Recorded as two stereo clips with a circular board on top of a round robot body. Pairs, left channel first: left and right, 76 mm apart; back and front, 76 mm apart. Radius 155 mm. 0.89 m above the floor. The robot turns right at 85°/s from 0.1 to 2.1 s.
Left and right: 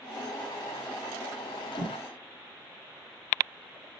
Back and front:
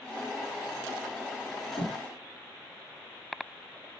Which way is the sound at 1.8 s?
135° left.